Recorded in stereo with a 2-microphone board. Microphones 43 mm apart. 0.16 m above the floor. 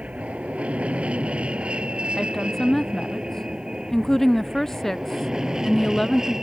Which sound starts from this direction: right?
An aircraft, at 0.0 s.